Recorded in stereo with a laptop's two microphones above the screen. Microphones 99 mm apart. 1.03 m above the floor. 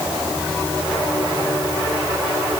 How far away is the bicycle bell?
No bicycle bell in this recording.